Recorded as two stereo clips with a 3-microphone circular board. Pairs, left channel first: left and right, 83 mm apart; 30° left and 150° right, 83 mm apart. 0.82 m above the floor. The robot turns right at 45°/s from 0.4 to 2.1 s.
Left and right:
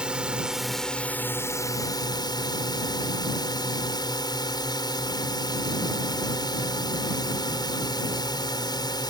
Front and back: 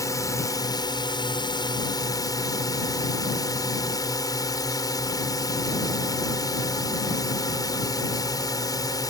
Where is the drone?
10° right; by 9.1 s 65° left.